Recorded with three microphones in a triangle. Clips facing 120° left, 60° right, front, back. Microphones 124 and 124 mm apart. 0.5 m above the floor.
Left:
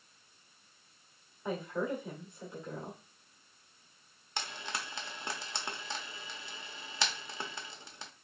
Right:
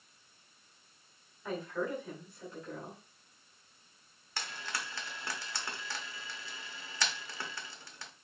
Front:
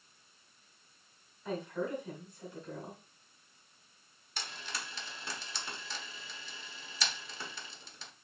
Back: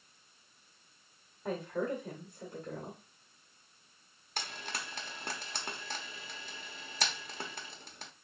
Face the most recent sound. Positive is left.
turn(degrees=-175)